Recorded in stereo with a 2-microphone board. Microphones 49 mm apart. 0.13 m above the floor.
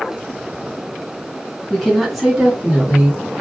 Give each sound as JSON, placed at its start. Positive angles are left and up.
{"t": 1.7, "sound": "a woman speaking", "side_deg": 15, "distance_m": 1.4}